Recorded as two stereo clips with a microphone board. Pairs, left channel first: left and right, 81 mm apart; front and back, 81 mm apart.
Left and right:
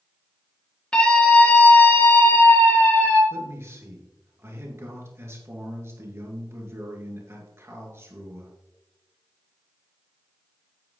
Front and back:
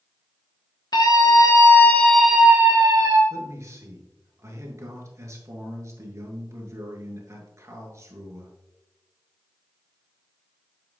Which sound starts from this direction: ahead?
A scream, at 0.9 s.